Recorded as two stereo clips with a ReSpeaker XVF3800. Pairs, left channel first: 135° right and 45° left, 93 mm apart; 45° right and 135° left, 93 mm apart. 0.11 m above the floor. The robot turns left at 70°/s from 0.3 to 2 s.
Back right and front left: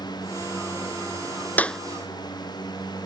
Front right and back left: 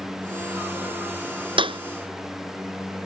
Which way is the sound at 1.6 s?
155° left.